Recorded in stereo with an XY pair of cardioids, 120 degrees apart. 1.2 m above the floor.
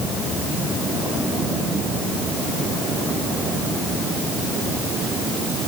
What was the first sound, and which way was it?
Only background noise.